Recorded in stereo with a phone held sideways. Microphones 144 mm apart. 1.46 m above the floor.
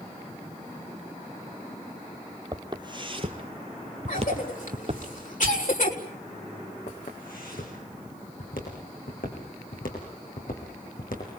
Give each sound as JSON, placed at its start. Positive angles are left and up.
{"t": 2.5, "sound": "footsteps", "side_deg": -30, "distance_m": 2.5}
{"t": 4.1, "sound": "a cough", "side_deg": 65, "distance_m": 5.0}
{"t": 6.9, "sound": "footsteps", "side_deg": 80, "distance_m": 8.0}